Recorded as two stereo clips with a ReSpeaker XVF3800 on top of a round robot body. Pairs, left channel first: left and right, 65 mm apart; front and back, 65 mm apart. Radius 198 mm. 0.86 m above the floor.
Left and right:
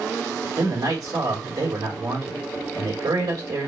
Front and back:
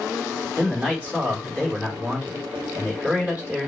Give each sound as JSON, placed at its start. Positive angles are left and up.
{"t": 0.6, "sound": "a man speaking", "azimuth_deg": -110, "distance_m": 3.5}